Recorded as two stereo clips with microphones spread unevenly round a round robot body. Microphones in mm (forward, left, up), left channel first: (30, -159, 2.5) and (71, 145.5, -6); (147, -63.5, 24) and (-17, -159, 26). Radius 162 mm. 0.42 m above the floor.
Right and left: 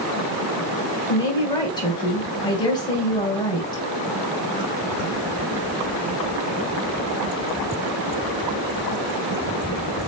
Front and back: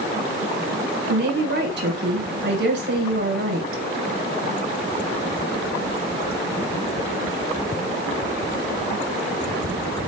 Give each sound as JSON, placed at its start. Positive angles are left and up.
{"t": 1.1, "sound": "a woman speaking", "azimuth_deg": -175, "distance_m": 2.5}